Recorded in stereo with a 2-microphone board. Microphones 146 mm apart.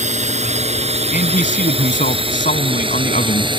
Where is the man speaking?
65° left (ahead or behind).